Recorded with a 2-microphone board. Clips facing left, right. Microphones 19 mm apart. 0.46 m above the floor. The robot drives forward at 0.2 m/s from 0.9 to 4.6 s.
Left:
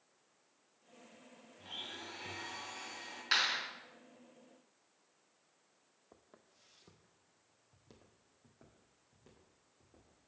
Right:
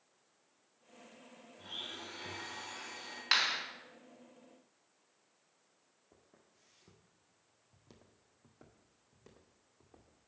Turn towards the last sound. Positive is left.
turn(degrees=-40)  # may be behind; listen again after turning